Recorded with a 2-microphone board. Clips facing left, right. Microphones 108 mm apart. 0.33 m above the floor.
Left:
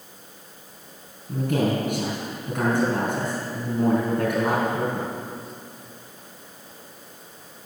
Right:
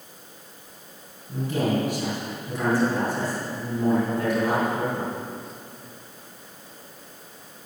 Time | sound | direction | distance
1.3 | a man speaking | 60° left (ahead or behind) | 4.5 m